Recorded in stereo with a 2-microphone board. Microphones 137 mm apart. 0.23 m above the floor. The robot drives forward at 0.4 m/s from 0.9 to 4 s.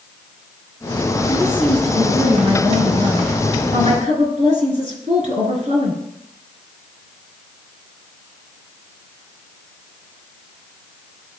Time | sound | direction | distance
1.3 | a woman speaking | 55° right (ahead or behind) | 3.5 m